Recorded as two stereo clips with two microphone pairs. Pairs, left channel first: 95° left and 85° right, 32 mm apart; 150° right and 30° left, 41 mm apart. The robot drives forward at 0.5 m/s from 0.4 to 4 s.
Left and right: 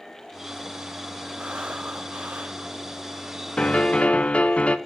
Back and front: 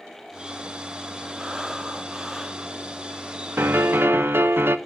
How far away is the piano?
About 1.0 m.